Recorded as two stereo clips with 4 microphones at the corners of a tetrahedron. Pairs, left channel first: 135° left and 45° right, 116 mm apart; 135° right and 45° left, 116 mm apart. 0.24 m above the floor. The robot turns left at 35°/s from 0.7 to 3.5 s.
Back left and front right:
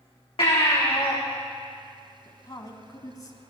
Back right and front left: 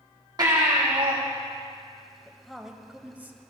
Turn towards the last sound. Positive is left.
turn(degrees=100)